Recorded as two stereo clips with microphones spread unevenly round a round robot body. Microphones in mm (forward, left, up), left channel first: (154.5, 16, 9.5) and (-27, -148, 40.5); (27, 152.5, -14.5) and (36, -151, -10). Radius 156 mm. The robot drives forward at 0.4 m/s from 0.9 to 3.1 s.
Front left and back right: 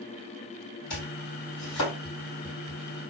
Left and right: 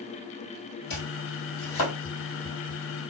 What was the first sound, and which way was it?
Chopping, 65° left.